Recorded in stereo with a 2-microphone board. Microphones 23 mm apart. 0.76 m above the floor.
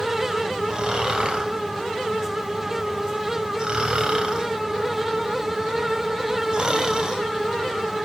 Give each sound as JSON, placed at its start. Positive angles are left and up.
{"t": 0.7, "sound": "snoring", "side_deg": -35, "distance_m": 1.9}